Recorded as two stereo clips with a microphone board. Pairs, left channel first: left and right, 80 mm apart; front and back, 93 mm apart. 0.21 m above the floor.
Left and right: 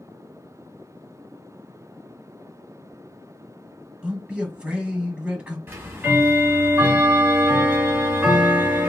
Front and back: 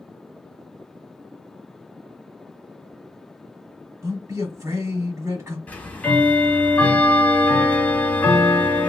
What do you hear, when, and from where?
4.0 s a man speaking: 160° right, 1.3 m
5.7 s ticking: 60° right, 1.0 m